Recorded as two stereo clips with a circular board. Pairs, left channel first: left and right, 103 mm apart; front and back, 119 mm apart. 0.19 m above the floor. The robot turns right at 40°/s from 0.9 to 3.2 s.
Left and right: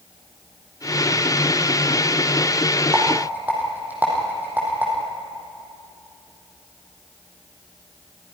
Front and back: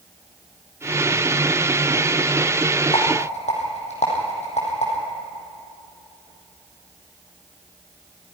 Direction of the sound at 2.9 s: 30° right.